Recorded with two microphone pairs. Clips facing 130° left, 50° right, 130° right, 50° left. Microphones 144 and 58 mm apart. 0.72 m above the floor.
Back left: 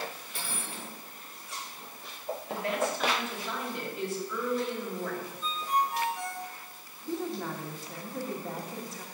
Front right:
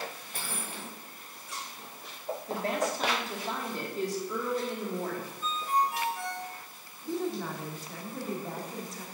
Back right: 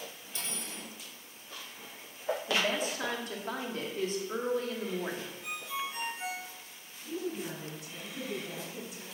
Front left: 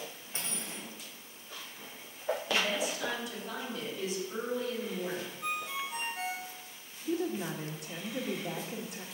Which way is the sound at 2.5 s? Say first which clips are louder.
Even, back right 1 dB; 95° right.